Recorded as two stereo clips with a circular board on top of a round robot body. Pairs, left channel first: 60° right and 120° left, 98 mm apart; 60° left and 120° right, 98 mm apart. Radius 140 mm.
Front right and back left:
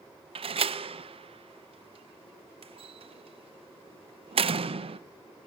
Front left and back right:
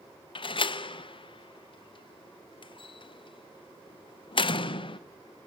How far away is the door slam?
About 0.7 m.